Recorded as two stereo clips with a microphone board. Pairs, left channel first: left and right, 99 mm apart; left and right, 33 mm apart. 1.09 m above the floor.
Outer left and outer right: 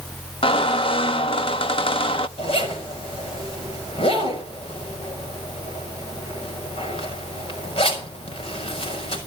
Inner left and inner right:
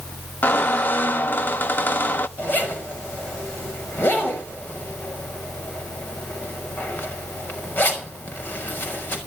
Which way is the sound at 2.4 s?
70° left (ahead or behind).